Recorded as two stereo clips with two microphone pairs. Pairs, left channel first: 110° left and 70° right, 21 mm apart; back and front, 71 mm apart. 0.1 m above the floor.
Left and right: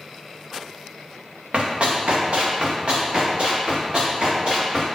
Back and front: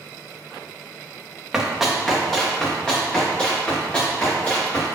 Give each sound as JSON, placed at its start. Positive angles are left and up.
{"t": 1.5, "sound": "running footsteps", "azimuth_deg": -90, "distance_m": 1.7}